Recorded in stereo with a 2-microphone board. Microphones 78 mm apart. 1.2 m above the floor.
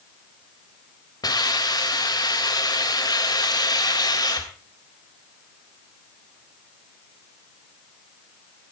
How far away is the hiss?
About 3 m.